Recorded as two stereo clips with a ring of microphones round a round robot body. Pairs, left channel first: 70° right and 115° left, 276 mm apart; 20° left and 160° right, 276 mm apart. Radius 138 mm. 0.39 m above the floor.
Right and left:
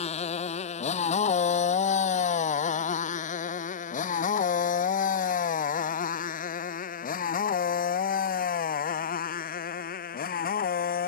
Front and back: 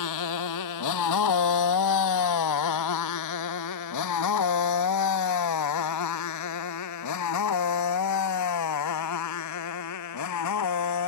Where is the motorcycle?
Straight ahead; by 11.1 s 10° right.